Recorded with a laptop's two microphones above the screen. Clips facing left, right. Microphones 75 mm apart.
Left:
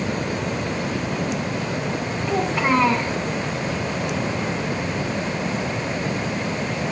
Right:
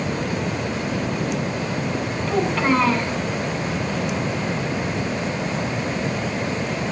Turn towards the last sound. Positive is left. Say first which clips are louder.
# right 1 dB
turn(degrees=15)  # may be behind; listen again after turning